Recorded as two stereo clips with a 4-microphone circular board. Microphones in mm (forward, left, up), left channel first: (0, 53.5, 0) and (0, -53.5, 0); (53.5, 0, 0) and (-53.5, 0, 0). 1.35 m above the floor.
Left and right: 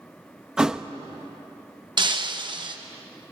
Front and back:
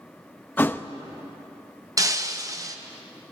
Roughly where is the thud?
Ahead.